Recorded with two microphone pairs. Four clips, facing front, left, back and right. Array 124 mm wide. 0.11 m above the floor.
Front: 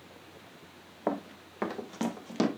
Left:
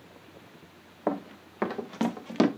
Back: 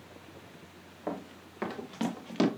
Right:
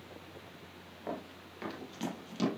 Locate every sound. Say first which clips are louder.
1.1 s running footsteps: left 10 dB, front 5 dB; 60° left, 1.2 m; by 2.5 s 90° left, 1.7 m